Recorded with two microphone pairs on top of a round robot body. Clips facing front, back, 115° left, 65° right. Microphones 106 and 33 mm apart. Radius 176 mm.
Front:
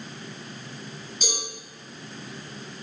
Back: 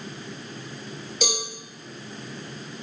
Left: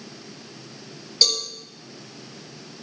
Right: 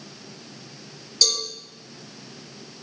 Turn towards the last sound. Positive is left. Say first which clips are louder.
# back 6 dB, left 1 dB
turn(degrees=180)